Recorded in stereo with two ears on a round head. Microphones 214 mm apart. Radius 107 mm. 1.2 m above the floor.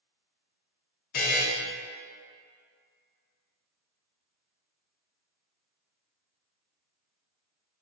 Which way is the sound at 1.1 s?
40° left (ahead or behind).